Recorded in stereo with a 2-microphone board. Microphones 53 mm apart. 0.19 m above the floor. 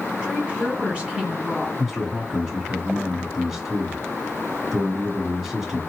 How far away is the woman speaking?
About 1.4 m.